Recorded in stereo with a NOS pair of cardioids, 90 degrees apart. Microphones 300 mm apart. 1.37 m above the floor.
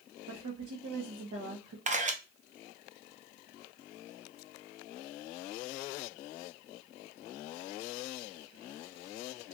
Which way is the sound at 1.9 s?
25° right.